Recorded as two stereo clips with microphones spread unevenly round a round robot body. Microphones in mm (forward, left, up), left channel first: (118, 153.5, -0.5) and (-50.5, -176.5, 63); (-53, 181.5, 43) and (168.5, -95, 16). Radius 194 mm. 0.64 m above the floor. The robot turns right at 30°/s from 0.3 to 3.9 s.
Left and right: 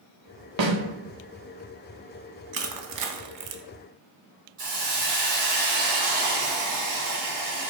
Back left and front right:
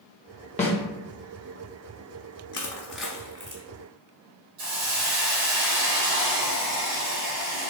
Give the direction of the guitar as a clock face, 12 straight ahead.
No guitar in this recording.